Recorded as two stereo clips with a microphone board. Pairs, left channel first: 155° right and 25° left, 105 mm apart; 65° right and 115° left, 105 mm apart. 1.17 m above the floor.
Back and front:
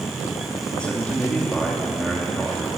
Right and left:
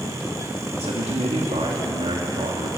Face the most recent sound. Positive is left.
turn(degrees=120)